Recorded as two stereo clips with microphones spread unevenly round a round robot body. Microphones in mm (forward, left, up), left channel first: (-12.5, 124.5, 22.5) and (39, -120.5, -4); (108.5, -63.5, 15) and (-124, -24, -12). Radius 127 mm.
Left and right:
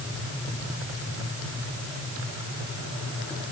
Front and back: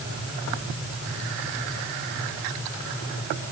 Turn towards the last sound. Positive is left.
No sound to turn to.